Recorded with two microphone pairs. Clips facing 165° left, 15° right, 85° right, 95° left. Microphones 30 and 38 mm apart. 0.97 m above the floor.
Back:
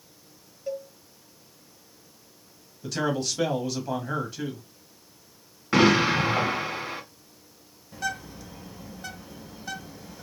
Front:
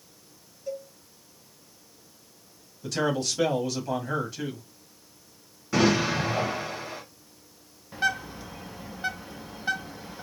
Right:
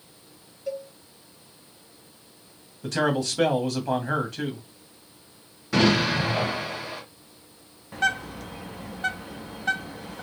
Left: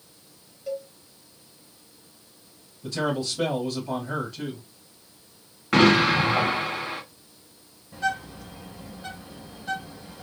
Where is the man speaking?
110° right, 1.0 m.